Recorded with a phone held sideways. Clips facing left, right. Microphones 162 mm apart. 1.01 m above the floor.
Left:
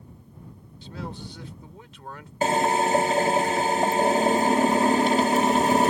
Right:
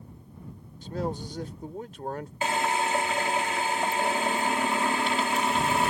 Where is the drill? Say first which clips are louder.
Left 6 dB; 40° left (ahead or behind).